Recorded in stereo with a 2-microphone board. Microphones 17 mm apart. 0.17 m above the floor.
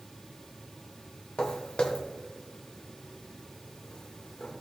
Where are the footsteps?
60° left (ahead or behind), 1.1 m; by 4.5 s 70° left (ahead or behind), 3.5 m.